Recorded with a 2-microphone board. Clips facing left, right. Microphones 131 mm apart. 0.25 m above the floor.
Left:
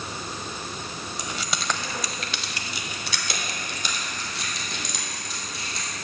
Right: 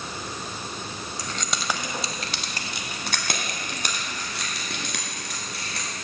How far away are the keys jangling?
About 0.7 m.